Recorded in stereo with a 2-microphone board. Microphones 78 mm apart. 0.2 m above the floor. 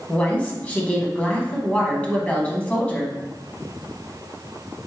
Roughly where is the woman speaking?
Centre.